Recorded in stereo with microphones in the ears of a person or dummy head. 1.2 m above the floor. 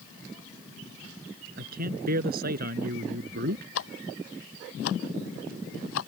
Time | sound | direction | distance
1.6 | a man speaking | 50° right (ahead or behind) | ?
3.8 | ticking | 85° left | ?